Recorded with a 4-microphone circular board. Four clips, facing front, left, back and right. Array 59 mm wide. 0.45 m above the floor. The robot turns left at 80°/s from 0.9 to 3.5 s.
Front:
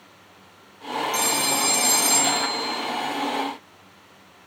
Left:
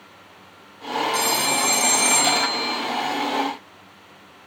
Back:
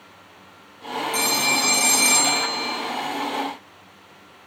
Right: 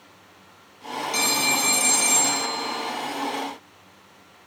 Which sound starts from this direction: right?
A phone ringing, at 1.1 s.